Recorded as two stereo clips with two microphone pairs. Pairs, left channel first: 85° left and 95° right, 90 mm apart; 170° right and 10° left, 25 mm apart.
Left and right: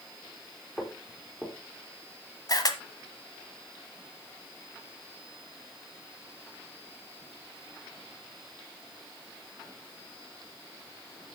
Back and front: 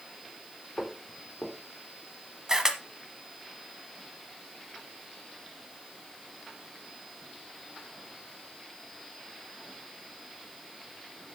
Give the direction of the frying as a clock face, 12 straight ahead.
I don't hear frying.